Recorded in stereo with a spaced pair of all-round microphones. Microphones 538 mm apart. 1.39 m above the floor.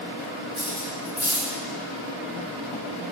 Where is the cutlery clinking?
30° left (ahead or behind), 1.5 m.